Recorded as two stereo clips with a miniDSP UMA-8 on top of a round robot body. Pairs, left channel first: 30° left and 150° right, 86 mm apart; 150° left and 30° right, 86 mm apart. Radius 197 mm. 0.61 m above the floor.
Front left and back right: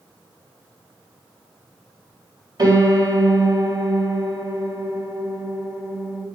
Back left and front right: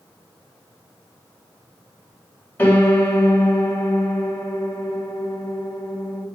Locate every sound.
2.6 s a piano: 145° right, 1.6 m